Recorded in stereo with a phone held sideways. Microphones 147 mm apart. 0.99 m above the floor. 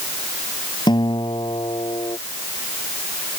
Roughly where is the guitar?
Left.